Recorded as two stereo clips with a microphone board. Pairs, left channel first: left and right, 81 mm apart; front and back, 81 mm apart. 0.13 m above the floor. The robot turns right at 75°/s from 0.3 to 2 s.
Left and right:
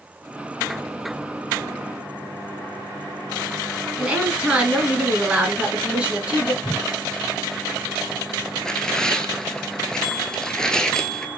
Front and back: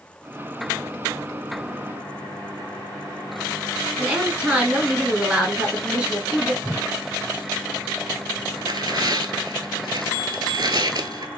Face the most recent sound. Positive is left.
turn(degrees=170)